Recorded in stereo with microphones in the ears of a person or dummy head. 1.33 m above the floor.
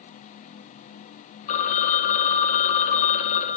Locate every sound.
1.5 s a phone ringing: 45° left (ahead or behind), 1.2 m